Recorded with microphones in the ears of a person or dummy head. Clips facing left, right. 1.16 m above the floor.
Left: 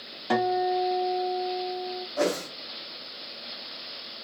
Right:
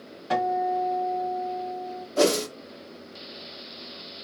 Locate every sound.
0.3 s a guitar: 75° left (ahead or behind), 3 m
2.2 s a whoosh: 60° right (ahead or behind), 0.8 m